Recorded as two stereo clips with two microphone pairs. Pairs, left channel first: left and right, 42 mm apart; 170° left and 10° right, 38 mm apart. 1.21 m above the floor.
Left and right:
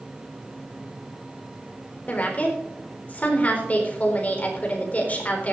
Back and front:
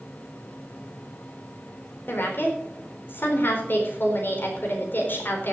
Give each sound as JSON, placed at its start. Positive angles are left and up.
{"t": 2.1, "sound": "a woman speaking", "azimuth_deg": 145, "distance_m": 4.0}